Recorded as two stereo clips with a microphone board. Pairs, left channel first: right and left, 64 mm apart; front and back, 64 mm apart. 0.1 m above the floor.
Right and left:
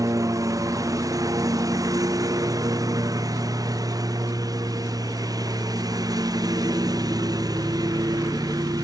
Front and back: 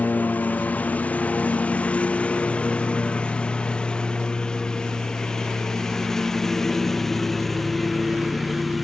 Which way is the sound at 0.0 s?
60° left.